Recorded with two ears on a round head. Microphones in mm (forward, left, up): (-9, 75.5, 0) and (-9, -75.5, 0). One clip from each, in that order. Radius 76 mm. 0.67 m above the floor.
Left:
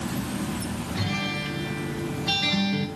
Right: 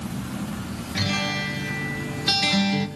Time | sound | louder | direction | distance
0.9 | a guitar | right 5 dB | 35° right (ahead or behind) | 0.8 m